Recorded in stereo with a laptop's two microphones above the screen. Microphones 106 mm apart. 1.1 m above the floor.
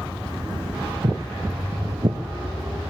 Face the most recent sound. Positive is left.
turn(degrees=-50)  # may be behind; listen again after turning